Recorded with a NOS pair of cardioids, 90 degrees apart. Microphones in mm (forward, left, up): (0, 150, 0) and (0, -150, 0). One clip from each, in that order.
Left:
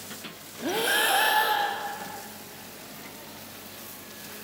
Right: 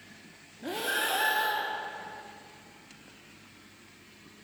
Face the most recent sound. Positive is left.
turn(degrees=35)